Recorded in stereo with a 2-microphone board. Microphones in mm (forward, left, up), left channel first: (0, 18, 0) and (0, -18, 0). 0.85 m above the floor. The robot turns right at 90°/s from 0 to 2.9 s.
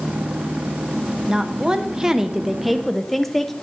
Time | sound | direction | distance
1.3 | a woman speaking | 15° right (ahead or behind) | 0.6 m